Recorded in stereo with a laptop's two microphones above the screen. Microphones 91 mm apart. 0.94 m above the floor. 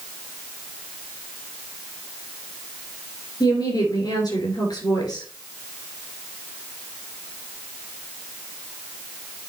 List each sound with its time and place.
3.4 s a woman speaking: 45° left (ahead or behind), 3.5 m